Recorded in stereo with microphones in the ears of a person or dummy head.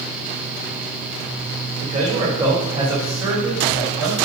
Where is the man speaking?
30° right (ahead or behind), 3 m; by 4.2 s 5° right (ahead or behind), 5 m.